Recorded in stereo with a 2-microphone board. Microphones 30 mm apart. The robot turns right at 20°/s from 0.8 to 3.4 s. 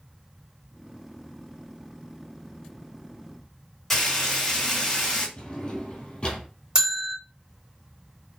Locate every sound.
3.9 s frying: 10° left (ahead or behind), 2 m
5.4 s a drawer: 40° left (ahead or behind), 1.8 m
6.8 s a bell: 25° right (ahead or behind), 2 m